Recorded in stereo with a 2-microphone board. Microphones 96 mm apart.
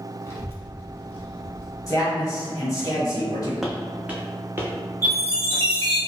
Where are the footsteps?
5° right (ahead or behind), 0.6 m; by 6.0 s 35° right (ahead or behind), 2 m.